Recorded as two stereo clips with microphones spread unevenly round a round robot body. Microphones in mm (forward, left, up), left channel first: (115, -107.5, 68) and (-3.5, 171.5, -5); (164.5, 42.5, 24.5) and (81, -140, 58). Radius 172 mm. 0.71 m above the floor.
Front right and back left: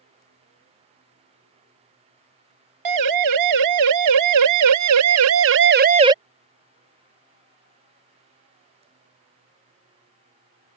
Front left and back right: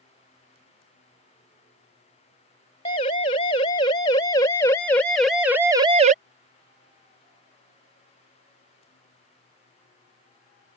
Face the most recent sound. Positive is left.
turn(degrees=-175)